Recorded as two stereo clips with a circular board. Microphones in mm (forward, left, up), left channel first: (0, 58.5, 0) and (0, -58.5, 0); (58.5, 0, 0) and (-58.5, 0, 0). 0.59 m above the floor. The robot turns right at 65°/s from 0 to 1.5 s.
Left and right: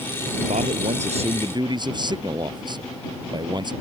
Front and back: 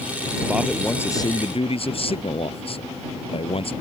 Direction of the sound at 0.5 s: 105° right.